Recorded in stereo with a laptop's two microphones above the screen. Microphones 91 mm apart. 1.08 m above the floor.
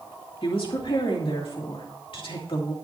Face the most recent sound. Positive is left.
turn(degrees=75)  # may be behind; listen again after turning